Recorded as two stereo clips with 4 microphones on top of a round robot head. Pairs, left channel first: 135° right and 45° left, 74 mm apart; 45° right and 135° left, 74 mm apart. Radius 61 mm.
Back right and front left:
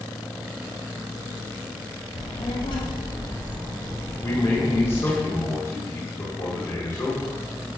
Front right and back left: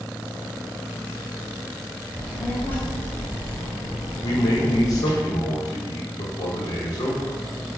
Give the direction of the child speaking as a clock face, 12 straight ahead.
4 o'clock.